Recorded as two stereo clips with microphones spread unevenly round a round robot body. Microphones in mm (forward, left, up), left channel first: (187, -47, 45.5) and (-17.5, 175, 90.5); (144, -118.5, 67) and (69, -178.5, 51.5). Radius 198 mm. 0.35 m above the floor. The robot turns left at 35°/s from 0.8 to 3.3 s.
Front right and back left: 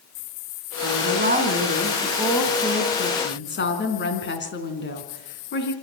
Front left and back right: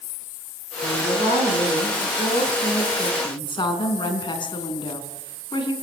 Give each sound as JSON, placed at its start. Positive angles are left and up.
{"t": 0.8, "sound": "a woman speaking", "azimuth_deg": 90, "distance_m": 4.5}